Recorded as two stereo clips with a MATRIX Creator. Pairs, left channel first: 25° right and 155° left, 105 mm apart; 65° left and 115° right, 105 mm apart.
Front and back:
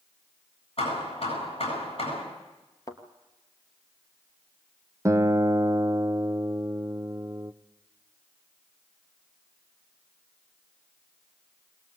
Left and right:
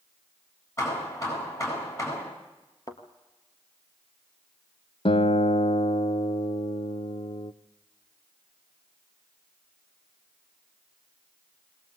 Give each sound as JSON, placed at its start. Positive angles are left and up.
{"t": 0.8, "sound": "hammering", "azimuth_deg": 10, "distance_m": 8.5}
{"t": 2.9, "sound": "a thud", "azimuth_deg": 25, "distance_m": 2.5}
{"t": 5.0, "sound": "a guitar", "azimuth_deg": 95, "distance_m": 0.6}